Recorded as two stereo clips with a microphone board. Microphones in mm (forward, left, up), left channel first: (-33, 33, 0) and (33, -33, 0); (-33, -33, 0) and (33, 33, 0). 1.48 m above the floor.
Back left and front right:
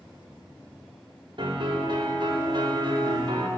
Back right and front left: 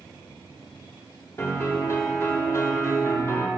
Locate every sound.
1.4 s a piano: 75° right, 3 m